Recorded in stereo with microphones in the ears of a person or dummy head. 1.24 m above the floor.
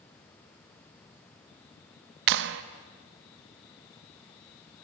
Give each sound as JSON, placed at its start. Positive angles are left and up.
{"t": 2.3, "sound": "a clap", "side_deg": -65, "distance_m": 0.8}